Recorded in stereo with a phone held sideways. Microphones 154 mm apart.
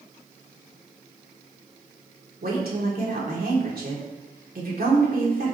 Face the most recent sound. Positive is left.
turn(degrees=-80)